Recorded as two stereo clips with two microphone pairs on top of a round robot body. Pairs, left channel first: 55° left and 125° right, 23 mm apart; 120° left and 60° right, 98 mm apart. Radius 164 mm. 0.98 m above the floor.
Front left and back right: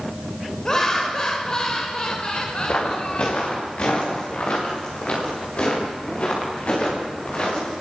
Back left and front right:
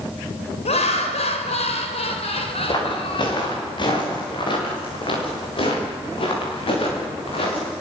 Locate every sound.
0.7 s laughter: 120° left, 4 m; by 3.6 s 85° left, 4 m
2.7 s footsteps: 75° left, 7.5 m; by 7.7 s 90° left, 11.5 m